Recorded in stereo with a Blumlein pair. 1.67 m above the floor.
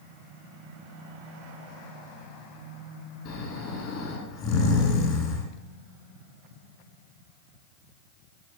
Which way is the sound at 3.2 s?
35° left.